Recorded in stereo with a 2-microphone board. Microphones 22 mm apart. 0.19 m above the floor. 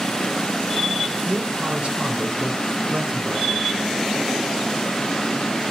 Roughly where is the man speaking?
Right.